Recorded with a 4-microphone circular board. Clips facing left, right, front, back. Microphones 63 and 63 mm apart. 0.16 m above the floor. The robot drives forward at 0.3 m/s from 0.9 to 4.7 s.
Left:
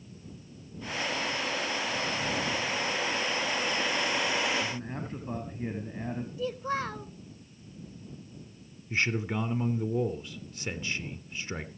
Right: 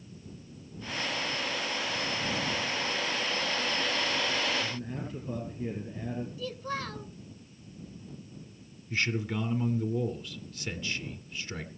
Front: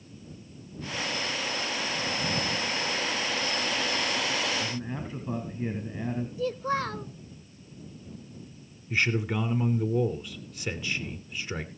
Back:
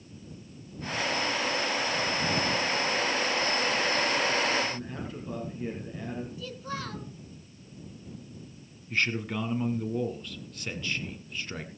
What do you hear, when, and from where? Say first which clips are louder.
4.6 s a man speaking: left 1 dB, even; 65° left, 2.5 m; by 6.3 s 70° left, 2.5 m
6.4 s a child speaking: left 4 dB, front 9 dB; 40° left, 0.9 m
8.9 s a man speaking: left 1 dB, front 2 dB; 70° left, 1.2 m